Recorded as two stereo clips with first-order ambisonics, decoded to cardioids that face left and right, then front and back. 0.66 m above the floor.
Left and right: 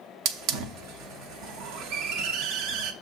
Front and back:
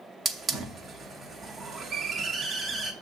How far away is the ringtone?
No ringtone in this recording.